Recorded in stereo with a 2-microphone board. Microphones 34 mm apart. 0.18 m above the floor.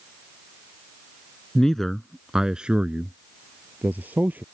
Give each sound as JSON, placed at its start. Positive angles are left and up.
{"t": 1.6, "sound": "a man speaking", "side_deg": 20}